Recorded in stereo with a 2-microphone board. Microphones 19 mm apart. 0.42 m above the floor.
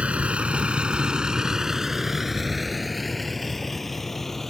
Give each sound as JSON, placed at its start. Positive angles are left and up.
{"t": 0.0, "sound": "a vehicle", "side_deg": -80}